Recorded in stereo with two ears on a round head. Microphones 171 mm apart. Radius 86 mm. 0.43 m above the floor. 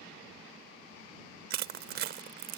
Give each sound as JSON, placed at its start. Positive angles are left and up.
{"t": 1.5, "sound": "crushing", "side_deg": -55}